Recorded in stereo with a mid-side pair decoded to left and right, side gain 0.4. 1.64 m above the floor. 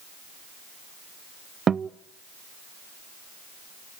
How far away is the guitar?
About 0.6 m.